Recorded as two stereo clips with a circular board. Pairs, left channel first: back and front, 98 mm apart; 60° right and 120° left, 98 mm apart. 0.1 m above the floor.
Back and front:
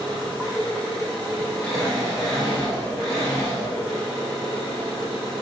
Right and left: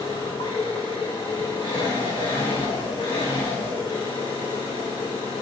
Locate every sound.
0.0 s an engine running: 90° right, 7 m